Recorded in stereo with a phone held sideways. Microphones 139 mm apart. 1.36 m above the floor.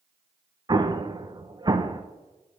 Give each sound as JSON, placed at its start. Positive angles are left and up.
{"t": 0.7, "sound": "an explosion", "side_deg": -30, "distance_m": 0.5}